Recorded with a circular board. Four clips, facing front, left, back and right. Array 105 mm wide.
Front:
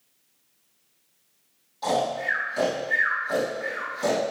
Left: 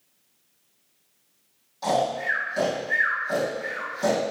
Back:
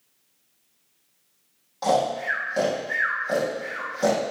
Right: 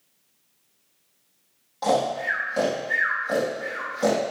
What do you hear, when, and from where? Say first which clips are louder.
1.8 s snoring: right 1 dB, back 3 dB; 140° right, 3.5 m